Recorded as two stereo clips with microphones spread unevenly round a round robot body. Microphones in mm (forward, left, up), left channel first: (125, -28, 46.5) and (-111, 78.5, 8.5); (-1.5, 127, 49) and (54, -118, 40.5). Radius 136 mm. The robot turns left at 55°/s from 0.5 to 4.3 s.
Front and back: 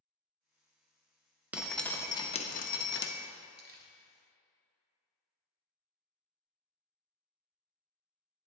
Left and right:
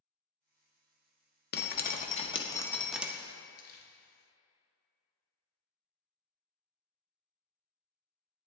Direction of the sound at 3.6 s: 150° left.